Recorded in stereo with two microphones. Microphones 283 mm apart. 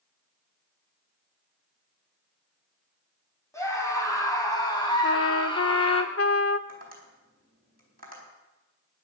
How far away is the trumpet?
About 0.5 m.